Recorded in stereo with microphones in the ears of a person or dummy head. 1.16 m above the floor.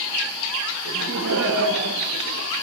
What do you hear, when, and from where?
0.8 s laughter: 70° right (ahead or behind), 1.7 m; by 2.5 s 60° right (ahead or behind), 2.5 m